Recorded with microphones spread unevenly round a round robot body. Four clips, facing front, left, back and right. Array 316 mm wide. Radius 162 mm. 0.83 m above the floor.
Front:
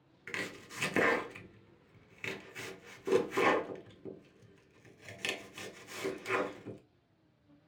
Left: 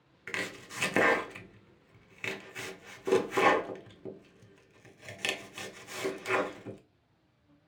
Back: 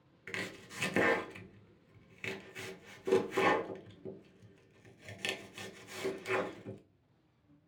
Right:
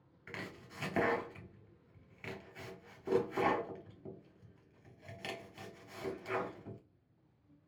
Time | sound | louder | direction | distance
0.3 | chopping | left 8 dB, front 1 dB | 80° left | 0.7 m